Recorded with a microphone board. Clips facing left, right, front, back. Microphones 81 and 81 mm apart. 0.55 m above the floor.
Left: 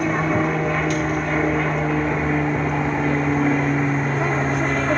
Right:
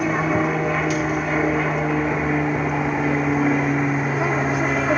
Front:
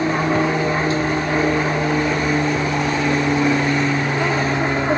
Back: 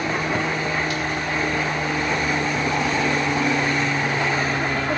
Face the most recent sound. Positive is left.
turn(degrees=-15)